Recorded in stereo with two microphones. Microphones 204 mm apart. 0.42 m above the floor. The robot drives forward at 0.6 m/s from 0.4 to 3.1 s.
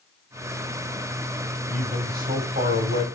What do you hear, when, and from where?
1.7 s a man speaking: 40° right (ahead or behind), 2 m; by 3.0 s 50° right (ahead or behind), 1.8 m